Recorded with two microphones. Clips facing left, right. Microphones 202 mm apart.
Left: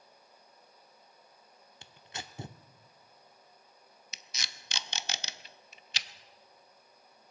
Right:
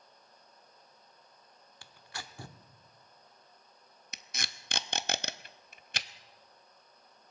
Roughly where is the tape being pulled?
Right.